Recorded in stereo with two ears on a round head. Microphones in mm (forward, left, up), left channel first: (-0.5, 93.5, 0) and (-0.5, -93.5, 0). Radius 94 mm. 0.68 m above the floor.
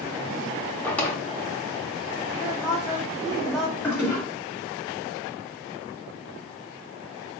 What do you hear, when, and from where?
0.8 s a drawer: 5° left (ahead or behind), 0.5 m
2.4 s a woman speaking: centre (ahead or behind), 1.1 m
3.8 s a toilet flushing: 10° left (ahead or behind), 1.6 m